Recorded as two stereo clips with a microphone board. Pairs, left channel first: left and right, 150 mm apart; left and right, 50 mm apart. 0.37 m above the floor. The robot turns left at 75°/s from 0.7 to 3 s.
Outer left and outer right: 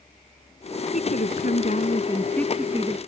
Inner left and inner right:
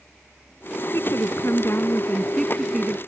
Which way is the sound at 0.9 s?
120° left.